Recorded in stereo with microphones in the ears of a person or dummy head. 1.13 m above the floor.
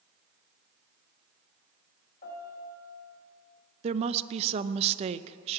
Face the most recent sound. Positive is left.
turn(degrees=-35)  # may be behind; listen again after turning